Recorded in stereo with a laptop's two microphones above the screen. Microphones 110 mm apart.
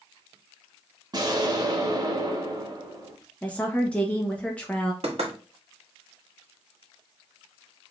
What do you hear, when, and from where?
1.1 s an explosion: 35° right (ahead or behind), 0.8 m
3.4 s a woman speaking: 10° left (ahead or behind), 0.6 m
5.0 s knocking: 65° right (ahead or behind), 1.7 m